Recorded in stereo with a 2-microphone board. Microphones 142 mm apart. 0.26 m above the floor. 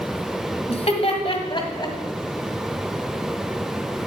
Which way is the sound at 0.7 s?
50° left (ahead or behind).